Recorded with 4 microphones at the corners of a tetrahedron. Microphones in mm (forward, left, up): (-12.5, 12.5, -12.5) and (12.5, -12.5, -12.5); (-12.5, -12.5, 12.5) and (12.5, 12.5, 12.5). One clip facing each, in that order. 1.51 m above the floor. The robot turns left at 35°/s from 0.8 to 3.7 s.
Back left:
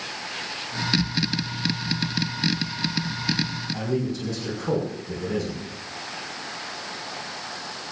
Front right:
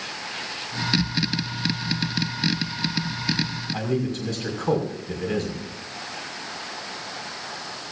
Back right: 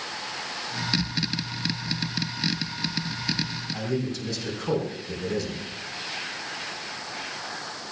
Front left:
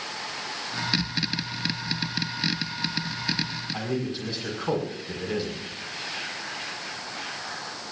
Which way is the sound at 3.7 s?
20° right.